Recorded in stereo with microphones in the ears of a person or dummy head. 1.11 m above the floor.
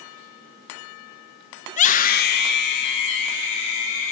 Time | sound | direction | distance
1.7 | a scream | 30° left (ahead or behind) | 0.9 m